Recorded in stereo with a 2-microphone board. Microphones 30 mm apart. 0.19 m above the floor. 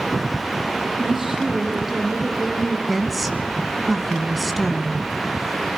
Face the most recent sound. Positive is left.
turn(degrees=0)  # may be behind; listen again after turning